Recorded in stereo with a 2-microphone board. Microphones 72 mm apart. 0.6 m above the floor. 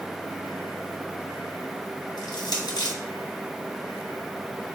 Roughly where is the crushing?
Left.